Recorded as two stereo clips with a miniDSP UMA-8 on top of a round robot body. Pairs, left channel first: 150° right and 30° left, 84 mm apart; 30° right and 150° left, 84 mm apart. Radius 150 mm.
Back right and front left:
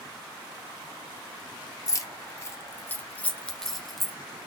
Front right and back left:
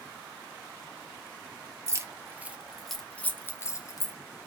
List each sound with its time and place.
1.9 s keys jangling: straight behind, 1.1 m; by 4.1 s 55° right, 1.3 m